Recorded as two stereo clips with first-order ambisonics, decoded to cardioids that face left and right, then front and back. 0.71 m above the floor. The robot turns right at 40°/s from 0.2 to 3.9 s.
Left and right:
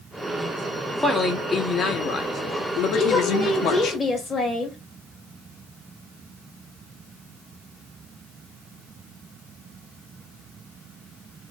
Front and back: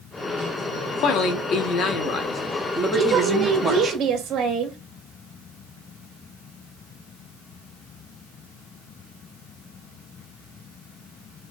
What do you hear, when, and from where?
1.0 s a man speaking: 5° right, 0.8 m; by 3.9 s 110° left, 0.8 m
2.9 s a woman speaking: 110° left, 1.1 m; by 4.8 s 145° left, 1.1 m